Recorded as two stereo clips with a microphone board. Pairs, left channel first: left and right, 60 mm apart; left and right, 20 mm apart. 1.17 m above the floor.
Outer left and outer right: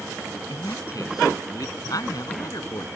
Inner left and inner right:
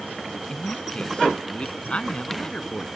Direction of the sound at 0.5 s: 80° left.